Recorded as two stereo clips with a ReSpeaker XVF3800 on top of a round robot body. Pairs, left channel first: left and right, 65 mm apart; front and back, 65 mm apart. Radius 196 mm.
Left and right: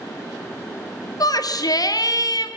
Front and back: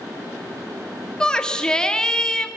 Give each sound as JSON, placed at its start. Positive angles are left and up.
{"t": 1.2, "sound": "a shout", "azimuth_deg": 80, "distance_m": 2.5}